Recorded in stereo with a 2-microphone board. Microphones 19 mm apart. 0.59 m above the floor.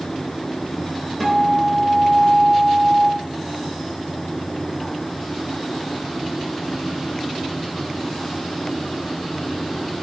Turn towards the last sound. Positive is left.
turn(degrees=10)  # may be behind; listen again after turning